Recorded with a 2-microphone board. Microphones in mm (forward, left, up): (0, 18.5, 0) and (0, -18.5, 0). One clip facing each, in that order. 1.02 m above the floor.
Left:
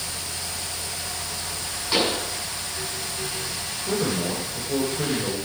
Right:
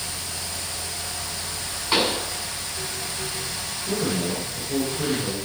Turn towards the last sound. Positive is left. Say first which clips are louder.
# even
turn(degrees=30)  # may be behind; listen again after turning